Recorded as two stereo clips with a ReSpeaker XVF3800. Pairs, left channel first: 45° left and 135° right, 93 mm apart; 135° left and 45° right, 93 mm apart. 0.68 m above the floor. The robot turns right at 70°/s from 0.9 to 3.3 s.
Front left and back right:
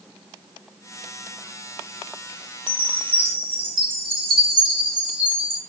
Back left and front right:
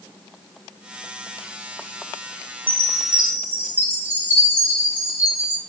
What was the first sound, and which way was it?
A chime, 155° right.